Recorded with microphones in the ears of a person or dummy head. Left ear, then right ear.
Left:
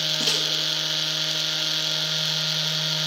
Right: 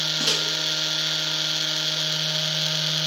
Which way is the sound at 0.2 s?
5° left (ahead or behind).